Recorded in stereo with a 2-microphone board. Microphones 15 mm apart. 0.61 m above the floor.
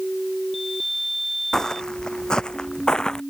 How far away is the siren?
I don't hear a siren.